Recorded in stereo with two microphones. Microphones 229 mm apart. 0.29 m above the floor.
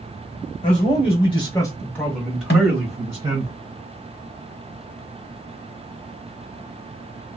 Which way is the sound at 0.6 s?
30° left (ahead or behind).